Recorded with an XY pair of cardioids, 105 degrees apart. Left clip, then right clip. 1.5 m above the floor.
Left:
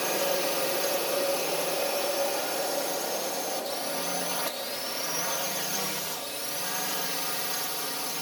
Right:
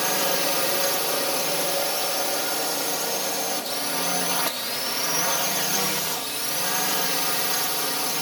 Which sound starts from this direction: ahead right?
A drone, at 0.0 s.